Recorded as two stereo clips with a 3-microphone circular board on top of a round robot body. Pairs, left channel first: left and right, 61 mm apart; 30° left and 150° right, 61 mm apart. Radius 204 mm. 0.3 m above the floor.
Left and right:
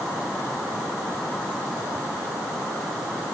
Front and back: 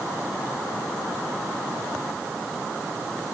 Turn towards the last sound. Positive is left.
No sound to turn to.